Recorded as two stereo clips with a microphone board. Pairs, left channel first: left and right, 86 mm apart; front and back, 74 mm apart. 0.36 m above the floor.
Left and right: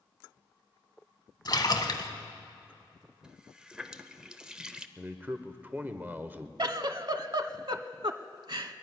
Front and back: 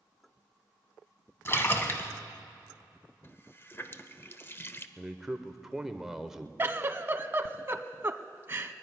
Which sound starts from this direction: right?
A man speaking, at 5.0 s.